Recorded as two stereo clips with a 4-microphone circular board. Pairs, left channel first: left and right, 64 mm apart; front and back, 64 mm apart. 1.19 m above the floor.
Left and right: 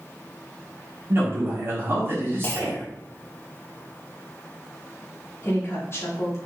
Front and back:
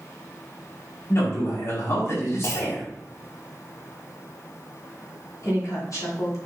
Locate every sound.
1.1 s a man speaking: 40° right, 3.5 m
2.4 s a clunk: 35° left, 0.8 m
5.4 s a woman speaking: 40° left, 2.5 m